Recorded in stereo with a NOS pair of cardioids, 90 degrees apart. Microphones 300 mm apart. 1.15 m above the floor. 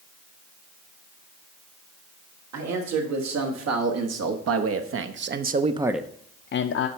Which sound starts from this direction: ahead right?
A man speaking, at 2.5 s.